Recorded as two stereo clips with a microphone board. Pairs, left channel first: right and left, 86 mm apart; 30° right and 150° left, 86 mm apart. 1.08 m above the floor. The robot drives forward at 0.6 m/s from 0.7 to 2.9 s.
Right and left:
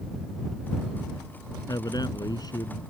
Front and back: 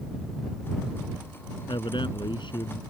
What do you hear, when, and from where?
1.7 s a man speaking: 50° right; by 2.8 s 55° right